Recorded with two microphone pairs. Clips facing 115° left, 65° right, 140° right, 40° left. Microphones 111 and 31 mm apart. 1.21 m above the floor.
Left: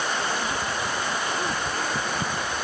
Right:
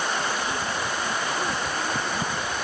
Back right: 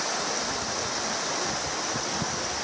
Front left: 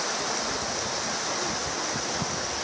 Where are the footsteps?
I don't hear footsteps.